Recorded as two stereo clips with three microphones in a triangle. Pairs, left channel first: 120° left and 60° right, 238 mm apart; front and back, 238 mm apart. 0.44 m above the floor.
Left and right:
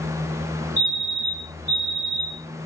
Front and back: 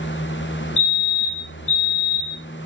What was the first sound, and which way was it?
A fire alarm, 20° left.